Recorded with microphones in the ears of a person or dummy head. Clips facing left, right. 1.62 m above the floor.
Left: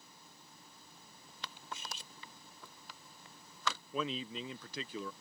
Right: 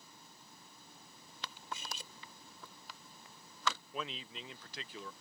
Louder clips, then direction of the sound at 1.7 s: Right 2 dB; 75° right (ahead or behind).